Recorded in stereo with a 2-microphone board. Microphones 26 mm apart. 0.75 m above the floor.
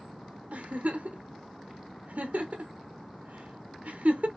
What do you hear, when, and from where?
0.5 s a giggle: 80° right, 1.1 m